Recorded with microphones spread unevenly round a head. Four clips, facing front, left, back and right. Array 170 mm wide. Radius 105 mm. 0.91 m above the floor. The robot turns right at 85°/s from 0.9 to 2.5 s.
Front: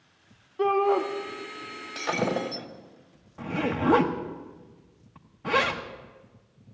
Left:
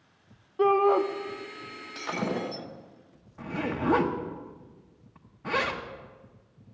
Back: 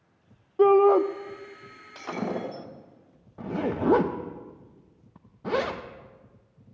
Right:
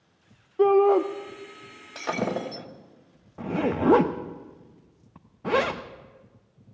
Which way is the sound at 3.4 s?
110° right.